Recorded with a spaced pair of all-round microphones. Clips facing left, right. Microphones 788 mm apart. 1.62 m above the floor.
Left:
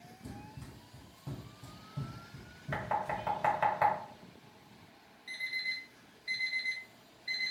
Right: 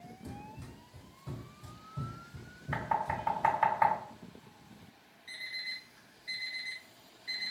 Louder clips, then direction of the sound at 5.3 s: Left 3 dB; 15° left (ahead or behind).